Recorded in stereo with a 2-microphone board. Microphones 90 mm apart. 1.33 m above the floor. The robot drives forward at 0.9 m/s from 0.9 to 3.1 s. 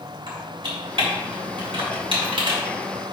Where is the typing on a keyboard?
70° right (ahead or behind), 3 m; by 2.6 s 75° right (ahead or behind), 3 m.